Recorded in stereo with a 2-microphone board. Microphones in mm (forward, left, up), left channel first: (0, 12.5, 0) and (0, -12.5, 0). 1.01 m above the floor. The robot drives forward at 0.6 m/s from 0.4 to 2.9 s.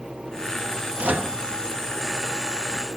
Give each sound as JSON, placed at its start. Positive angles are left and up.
{"t": 1.0, "sound": "a microwave", "side_deg": -70, "distance_m": 1.0}